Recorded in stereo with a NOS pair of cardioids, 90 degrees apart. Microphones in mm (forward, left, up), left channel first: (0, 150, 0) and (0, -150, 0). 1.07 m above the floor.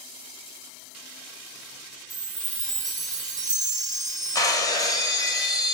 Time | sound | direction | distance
2.1 | a chime | 25° right | 0.9 m
4.3 | breaking glass | 10° left | 1.0 m